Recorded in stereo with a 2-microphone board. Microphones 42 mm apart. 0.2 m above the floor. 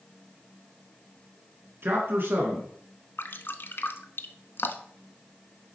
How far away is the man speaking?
About 2 m.